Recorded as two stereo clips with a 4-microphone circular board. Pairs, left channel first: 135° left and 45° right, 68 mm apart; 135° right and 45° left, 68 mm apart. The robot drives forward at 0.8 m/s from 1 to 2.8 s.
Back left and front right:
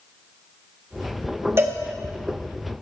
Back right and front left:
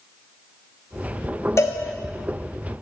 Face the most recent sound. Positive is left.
turn(degrees=-130)